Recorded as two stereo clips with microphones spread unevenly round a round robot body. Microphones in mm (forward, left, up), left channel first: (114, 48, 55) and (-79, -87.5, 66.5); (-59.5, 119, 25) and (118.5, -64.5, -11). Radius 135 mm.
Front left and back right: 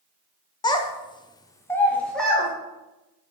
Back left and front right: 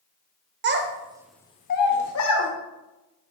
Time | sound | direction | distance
0.6 | a child speaking | 30° right | 0.7 m